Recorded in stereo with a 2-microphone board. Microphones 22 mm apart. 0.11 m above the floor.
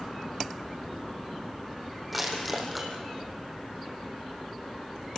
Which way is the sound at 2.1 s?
Centre (ahead or behind).